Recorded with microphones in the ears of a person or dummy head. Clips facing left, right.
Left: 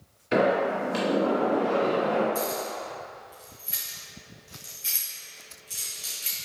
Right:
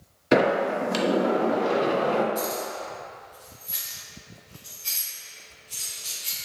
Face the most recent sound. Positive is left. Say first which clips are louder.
# even
turn(degrees=25)  # may be behind; listen again after turning